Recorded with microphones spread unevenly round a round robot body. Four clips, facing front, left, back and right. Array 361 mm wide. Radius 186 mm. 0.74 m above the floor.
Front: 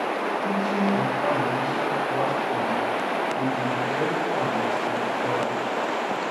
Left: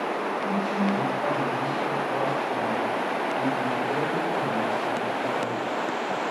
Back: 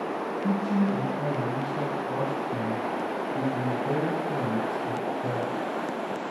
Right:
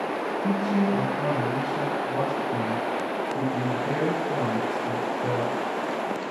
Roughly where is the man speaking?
Behind right.